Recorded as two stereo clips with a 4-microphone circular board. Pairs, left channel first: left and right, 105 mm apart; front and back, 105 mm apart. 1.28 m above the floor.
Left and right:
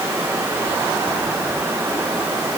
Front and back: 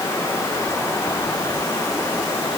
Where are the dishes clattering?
No dishes clattering in this recording.